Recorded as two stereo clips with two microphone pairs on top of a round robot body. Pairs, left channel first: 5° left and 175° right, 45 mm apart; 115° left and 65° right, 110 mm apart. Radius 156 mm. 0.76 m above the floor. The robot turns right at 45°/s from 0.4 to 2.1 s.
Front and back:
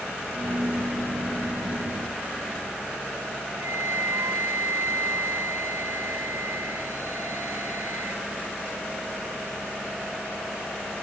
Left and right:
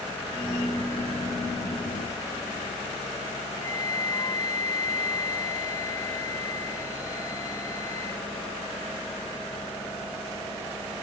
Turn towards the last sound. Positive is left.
turn(degrees=180)